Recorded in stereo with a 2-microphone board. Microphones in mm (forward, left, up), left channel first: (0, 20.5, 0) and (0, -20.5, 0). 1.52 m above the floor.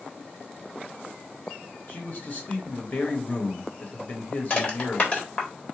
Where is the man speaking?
40° left (ahead or behind), 0.9 m.